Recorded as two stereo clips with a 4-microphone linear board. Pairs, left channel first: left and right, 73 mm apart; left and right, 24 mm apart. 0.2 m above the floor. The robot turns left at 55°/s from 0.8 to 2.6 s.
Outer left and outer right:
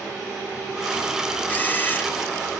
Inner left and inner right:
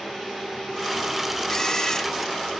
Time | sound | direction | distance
1.5 | a camera shutter | 25° left (ahead or behind) | 1.2 m